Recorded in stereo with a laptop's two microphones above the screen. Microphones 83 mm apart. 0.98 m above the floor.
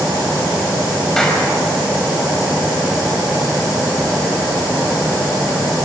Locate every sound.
1.2 s a clap: 10° left (ahead or behind), 5 m